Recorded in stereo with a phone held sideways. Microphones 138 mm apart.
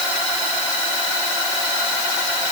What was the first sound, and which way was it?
Only background noise.